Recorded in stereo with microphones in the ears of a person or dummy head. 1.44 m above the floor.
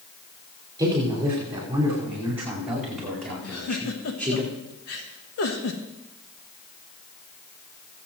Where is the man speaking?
20° right (ahead or behind), 5 m; by 4.4 s 5° left (ahead or behind), 4 m.